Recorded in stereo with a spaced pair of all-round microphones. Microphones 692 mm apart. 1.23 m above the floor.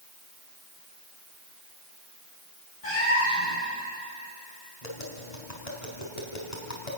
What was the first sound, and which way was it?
A cat meowing, 55° left (ahead or behind).